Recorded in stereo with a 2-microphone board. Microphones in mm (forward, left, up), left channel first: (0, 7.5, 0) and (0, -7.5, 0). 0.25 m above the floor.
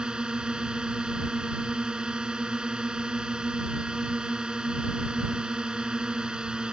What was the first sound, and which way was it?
A drone, 60° right (ahead or behind).